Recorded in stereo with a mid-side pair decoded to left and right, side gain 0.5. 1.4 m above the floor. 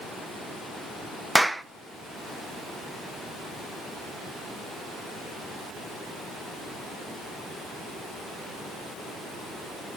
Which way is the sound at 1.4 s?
5° right.